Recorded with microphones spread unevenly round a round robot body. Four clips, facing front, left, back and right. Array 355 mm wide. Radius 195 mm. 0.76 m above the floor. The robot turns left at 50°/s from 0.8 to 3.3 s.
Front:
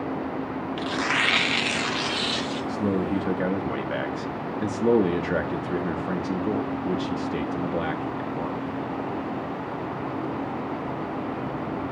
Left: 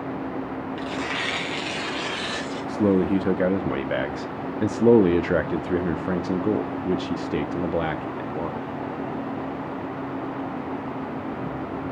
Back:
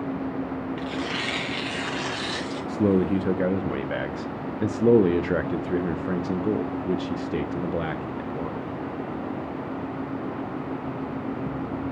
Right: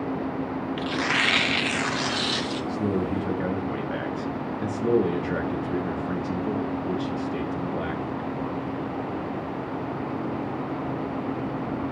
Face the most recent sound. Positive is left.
turn(degrees=80)